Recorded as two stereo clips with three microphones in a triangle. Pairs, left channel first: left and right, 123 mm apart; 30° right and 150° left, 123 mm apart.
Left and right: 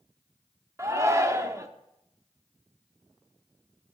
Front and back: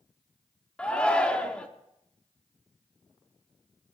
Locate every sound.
0.8 s a shout: 100° right, 0.7 m